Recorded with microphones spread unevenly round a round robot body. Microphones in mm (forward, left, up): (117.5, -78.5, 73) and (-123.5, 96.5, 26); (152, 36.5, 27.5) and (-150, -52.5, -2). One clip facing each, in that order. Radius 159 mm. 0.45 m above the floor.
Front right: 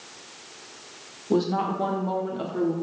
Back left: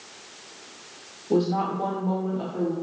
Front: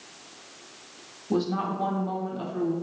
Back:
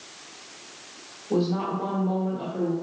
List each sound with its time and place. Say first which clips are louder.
1.3 s a woman speaking: back left 1 dB, back 2 dB; 30° left, 1.6 m; by 2.7 s 20° right, 1.5 m